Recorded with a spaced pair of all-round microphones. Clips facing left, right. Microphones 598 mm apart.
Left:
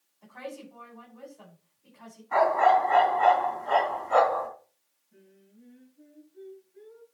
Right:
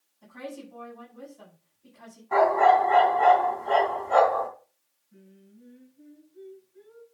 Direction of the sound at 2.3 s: 70° right (ahead or behind).